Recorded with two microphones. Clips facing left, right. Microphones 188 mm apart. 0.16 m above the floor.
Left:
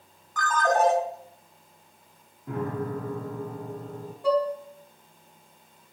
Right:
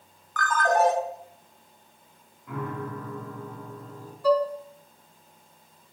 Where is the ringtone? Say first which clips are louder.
Even; 20° left (ahead or behind), 1.6 m.